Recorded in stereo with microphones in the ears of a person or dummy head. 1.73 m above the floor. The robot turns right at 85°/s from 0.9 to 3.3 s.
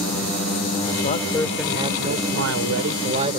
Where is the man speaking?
140° left; by 3.4 s 30° right.